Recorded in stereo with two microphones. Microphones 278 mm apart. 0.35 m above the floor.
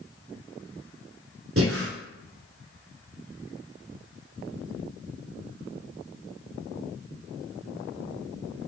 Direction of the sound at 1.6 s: 50° right (ahead or behind).